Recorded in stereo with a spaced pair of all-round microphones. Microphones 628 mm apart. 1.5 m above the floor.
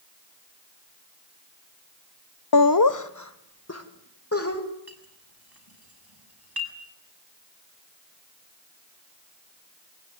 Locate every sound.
2.5 s laughter: 40° left (ahead or behind), 0.6 m; by 4.6 s 20° left (ahead or behind), 2.5 m
4.9 s a clink: 35° right (ahead or behind), 7 m